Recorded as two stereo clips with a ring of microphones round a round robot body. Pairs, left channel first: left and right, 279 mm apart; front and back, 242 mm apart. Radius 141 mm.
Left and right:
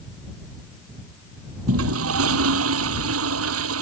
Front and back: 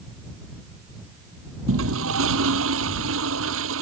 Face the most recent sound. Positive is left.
turn(degrees=-130)